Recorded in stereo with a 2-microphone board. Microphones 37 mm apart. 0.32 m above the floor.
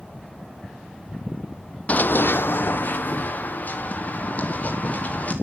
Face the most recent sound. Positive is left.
turn(degrees=45)  # may be behind; listen again after turning